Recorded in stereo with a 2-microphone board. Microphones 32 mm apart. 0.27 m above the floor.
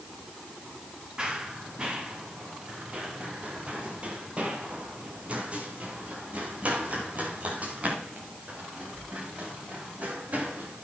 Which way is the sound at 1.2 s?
25° right (ahead or behind).